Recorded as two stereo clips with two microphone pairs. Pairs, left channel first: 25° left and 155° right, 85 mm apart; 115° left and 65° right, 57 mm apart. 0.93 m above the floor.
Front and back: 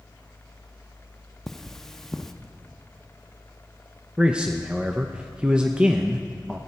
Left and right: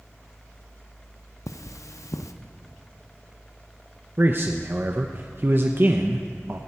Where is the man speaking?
85° right, 0.6 m.